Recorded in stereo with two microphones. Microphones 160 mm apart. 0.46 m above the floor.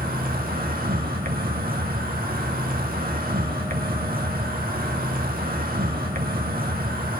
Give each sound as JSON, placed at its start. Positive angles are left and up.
{"t": 0.0, "sound": "an insect", "side_deg": -65, "distance_m": 0.8}